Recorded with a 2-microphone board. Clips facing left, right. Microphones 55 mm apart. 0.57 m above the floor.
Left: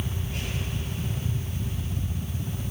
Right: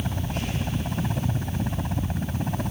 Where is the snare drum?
No snare drum in this recording.